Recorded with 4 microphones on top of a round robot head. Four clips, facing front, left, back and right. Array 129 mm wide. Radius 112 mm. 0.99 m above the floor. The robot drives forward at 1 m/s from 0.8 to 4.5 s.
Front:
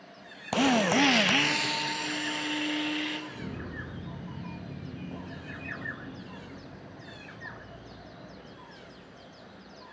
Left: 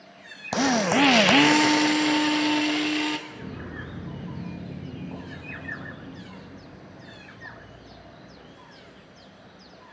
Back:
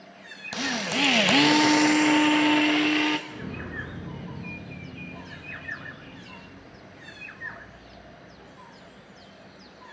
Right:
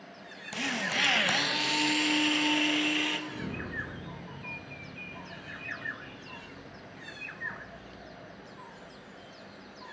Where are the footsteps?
120° right, 0.9 m; by 9.8 s 45° left, 8 m.